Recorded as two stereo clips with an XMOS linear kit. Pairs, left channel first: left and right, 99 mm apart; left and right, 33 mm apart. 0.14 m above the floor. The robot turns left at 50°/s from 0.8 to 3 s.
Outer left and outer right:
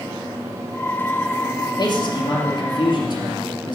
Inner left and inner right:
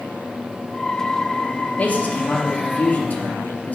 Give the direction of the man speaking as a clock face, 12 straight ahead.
8 o'clock.